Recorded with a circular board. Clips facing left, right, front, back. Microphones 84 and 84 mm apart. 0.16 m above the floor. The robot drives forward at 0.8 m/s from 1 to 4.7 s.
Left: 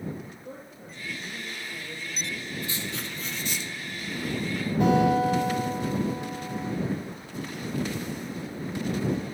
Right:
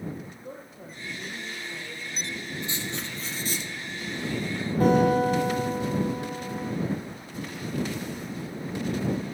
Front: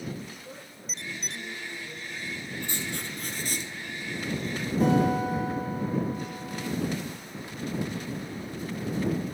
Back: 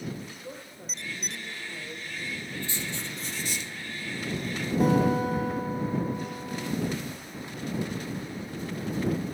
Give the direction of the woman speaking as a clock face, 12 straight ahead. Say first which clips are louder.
Right 1 dB, back 2 dB; 4 o'clock.